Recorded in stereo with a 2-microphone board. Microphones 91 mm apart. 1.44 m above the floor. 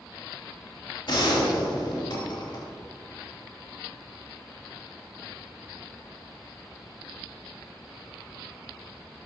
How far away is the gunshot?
About 3 m.